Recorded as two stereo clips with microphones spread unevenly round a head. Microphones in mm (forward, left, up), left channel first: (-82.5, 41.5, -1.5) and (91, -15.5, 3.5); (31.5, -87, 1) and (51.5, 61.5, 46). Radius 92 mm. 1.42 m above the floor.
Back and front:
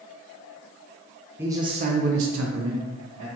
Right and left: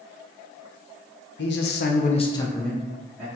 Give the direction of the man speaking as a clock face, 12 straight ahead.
3 o'clock.